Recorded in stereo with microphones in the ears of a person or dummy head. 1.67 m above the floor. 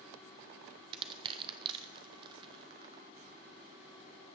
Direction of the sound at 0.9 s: 30° right (ahead or behind).